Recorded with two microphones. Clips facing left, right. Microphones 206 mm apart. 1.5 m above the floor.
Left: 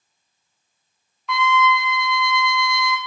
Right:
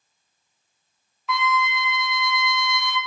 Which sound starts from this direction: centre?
A trumpet, at 1.3 s.